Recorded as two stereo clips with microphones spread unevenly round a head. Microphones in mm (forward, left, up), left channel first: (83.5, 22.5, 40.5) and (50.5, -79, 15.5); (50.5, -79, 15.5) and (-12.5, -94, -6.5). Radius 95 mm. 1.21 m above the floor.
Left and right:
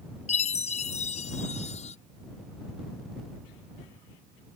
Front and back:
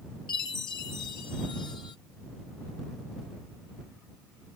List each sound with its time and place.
0.3 s a chime: 55° left